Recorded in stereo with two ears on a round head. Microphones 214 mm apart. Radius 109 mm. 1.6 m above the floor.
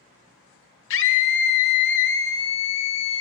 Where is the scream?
50° left (ahead or behind), 1.0 m.